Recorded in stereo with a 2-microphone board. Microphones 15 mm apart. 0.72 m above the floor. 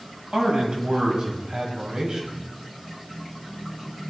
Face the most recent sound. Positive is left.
turn(degrees=-65)  # may be behind; listen again after turning